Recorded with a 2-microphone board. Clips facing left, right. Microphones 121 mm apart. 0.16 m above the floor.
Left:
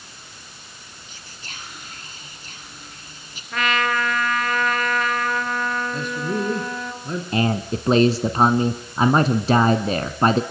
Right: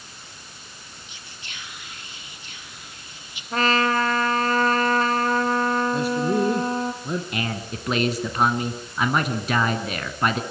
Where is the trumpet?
35° right (ahead or behind), 2 m.